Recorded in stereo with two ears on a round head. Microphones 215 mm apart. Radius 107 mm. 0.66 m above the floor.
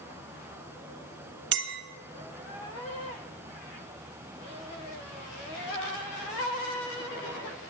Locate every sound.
1.5 s a clink: 50° right (ahead or behind), 1.4 m